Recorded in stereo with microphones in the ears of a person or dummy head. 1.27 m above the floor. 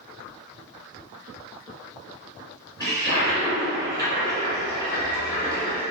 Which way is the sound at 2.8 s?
15° right (ahead or behind).